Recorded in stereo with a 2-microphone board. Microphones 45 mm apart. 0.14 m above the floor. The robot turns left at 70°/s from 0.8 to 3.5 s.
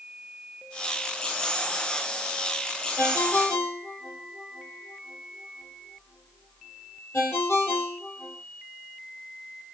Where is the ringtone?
55° left (ahead or behind), 2.5 m; by 8.4 s 70° left (ahead or behind), 2.5 m.